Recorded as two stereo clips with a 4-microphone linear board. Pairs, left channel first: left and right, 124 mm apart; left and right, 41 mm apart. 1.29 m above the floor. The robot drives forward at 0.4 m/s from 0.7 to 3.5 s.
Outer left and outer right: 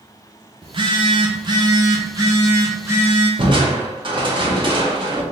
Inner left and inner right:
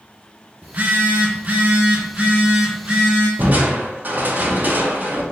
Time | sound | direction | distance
0.6 | a phone buzzing | 40° right (ahead or behind) | 0.6 m
3.4 | crushing | 40° right (ahead or behind) | 0.8 m